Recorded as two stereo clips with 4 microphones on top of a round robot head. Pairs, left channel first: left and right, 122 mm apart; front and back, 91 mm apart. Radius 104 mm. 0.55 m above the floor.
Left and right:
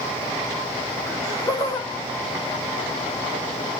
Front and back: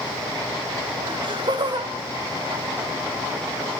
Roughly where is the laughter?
Behind left.